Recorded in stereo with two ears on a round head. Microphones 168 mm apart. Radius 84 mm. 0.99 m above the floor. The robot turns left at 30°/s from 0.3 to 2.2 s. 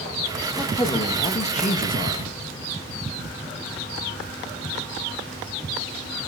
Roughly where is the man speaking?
Behind.